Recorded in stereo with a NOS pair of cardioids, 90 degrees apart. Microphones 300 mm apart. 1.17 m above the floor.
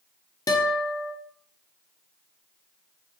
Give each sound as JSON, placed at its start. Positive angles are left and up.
{"t": 0.5, "sound": "a guitar", "azimuth_deg": 10, "distance_m": 0.6}